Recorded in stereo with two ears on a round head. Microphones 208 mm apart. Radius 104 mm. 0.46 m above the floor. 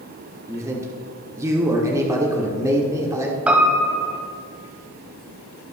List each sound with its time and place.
0.5 s a man speaking: 15° right (ahead or behind), 1.0 m
3.5 s a piano: 5° right (ahead or behind), 1.2 m